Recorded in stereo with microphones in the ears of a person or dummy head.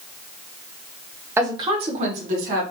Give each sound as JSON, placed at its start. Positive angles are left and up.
{"t": 1.4, "sound": "a woman speaking", "side_deg": -15, "distance_m": 0.5}